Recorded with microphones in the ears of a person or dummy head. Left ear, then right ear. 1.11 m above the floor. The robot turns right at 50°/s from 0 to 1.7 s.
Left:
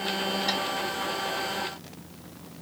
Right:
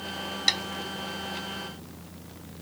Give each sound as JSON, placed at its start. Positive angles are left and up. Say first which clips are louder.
{"t": 0.5, "sound": "tapping", "louder": "right 6 dB", "side_deg": -70, "distance_m": 1.5}